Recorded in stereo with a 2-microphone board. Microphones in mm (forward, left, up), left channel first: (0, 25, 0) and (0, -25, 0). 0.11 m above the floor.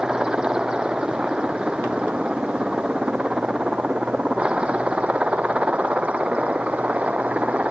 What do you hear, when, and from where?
0.0 s a helicopter: 20° right (ahead or behind); by 7.7 s 30° right (ahead or behind)